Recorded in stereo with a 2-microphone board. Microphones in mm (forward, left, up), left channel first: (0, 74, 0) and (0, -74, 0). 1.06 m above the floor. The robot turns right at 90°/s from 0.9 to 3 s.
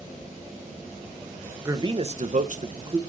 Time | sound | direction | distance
1.6 | a man speaking | 160° right | 0.7 m